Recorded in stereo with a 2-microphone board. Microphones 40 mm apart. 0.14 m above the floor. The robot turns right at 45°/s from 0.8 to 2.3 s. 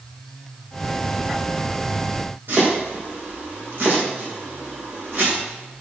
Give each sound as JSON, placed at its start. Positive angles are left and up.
{"t": 2.5, "sound": "chopping", "side_deg": -60, "distance_m": 6.0}